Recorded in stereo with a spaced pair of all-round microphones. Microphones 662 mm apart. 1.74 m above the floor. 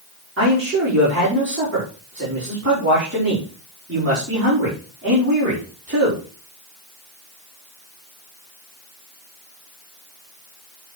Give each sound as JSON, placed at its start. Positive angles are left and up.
{"t": 0.4, "sound": "a man speaking", "side_deg": -20, "distance_m": 6.5}